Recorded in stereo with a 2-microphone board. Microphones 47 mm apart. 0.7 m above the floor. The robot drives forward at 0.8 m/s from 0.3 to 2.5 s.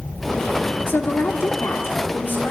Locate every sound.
0.9 s a woman speaking: 60° left (ahead or behind), 1.9 m; by 2.5 s 45° left (ahead or behind), 2.5 m